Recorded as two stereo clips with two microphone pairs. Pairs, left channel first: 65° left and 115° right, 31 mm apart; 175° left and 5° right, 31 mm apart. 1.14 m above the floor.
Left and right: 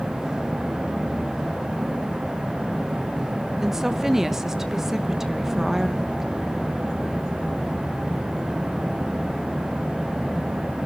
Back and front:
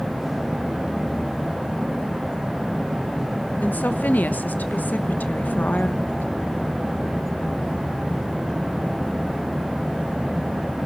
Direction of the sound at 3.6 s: 170° left.